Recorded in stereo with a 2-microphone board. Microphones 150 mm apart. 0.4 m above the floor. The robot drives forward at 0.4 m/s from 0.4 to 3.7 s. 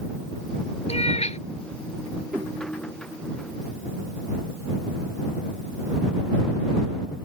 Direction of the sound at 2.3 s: 15° right (ahead or behind).